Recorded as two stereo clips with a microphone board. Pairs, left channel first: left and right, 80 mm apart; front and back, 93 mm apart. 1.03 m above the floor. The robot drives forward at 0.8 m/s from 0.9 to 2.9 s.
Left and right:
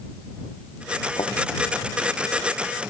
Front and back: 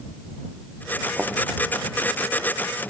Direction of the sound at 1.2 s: 105° left.